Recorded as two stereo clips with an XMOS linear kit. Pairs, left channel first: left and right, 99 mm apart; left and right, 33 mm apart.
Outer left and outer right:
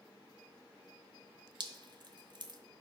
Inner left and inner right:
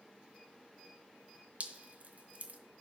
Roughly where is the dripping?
Right.